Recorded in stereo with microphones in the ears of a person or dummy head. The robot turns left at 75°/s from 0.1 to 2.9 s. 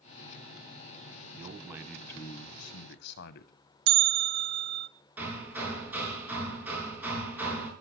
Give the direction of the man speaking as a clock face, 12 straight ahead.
5 o'clock.